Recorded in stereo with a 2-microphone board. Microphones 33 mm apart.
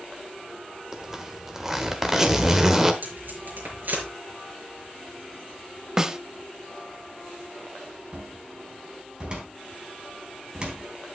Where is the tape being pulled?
65° right (ahead or behind), 5.5 m.